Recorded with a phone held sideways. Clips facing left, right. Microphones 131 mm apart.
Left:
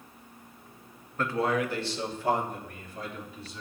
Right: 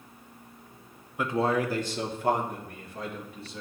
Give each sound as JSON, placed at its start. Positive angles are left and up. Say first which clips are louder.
{"t": 1.2, "sound": "a man speaking", "louder": "right 1 dB", "side_deg": -10, "distance_m": 0.6}